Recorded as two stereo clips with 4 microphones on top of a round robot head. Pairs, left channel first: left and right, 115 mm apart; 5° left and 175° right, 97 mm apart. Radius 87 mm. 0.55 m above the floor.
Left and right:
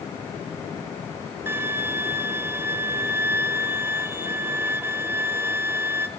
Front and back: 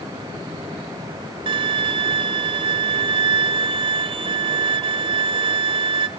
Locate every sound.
1.5 s a violin: 160° right, 1.0 m